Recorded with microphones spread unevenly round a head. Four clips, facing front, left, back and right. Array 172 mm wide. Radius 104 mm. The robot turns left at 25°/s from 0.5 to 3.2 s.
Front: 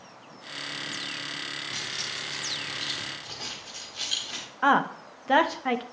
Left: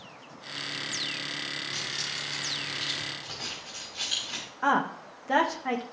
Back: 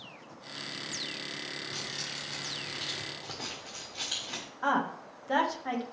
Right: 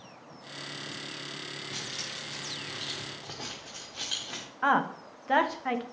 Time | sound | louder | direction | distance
1.7 | keys jangling | left 3 dB, front 3 dB | 90° right | 1.7 m
4.6 | a woman speaking | even, front 7 dB | 10° left | 0.9 m